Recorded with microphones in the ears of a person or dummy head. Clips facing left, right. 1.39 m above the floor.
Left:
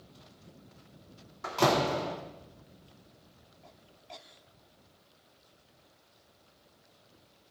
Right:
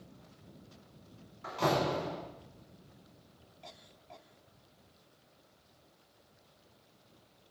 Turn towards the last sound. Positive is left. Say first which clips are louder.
# left 4 dB
turn(degrees=70)  # may be behind; listen again after turning